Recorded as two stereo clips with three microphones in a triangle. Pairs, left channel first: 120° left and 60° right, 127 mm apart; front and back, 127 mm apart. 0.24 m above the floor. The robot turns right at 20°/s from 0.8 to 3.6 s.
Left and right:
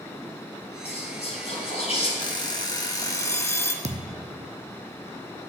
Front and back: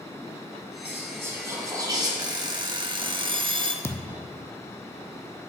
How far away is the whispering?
About 1.8 m.